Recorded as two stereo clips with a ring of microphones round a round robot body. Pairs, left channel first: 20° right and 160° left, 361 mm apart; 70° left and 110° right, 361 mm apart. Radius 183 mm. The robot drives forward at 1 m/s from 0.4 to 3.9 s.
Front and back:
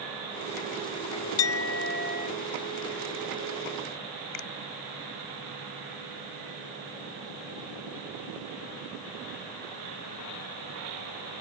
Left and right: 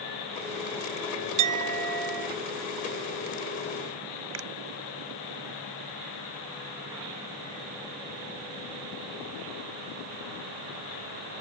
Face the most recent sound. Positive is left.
turn(degrees=-60)